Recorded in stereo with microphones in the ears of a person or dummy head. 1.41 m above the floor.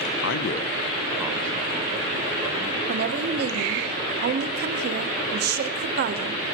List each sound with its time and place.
0.2 s a man speaking: 70° left (ahead or behind), 0.7 m; by 2.8 s 25° right (ahead or behind), 3.5 m
2.9 s a woman speaking: 55° right (ahead or behind), 1.0 m